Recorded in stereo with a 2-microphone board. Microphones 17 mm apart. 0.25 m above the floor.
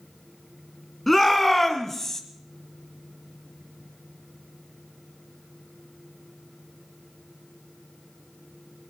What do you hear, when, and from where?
1.1 s a shout: 10° left (ahead or behind), 3 m; by 2.2 s 25° left (ahead or behind), 1.9 m